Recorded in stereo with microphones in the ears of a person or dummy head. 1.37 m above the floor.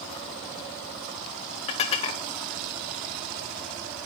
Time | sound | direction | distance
1.7 | dishes clattering | 40° left (ahead or behind) | 1.1 m